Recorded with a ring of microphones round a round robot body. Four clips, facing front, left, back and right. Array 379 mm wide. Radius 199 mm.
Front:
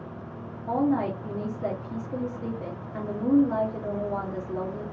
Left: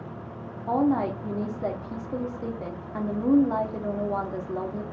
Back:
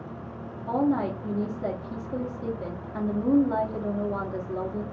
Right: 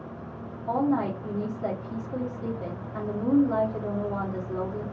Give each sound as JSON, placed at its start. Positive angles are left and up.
{"t": 0.7, "sound": "a woman speaking", "azimuth_deg": 85, "distance_m": 1.0}